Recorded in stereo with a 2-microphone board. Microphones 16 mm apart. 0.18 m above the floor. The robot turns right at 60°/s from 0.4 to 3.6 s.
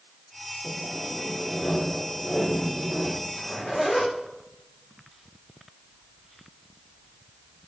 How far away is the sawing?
About 5 m.